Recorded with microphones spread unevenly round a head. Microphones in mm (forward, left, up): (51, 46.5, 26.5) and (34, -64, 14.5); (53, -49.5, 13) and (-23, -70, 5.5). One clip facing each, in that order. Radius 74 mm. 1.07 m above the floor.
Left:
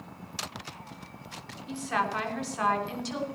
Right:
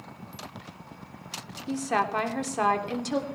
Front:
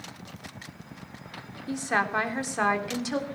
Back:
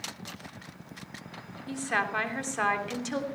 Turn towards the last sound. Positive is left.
turn(degrees=-70)